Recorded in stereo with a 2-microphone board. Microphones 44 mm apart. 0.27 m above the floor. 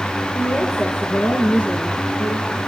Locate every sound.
0.3 s a woman speaking: 55° left (ahead or behind), 5 m; by 2.6 s 40° left (ahead or behind), 5 m